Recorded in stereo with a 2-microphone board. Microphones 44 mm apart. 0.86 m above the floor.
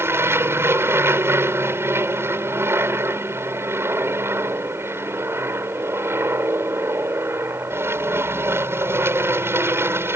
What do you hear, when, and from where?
0.0 s an aircraft: 65° right (ahead or behind)